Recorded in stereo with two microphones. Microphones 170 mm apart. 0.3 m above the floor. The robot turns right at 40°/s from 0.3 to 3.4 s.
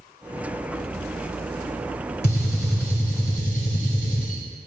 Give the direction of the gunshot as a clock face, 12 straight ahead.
9 o'clock.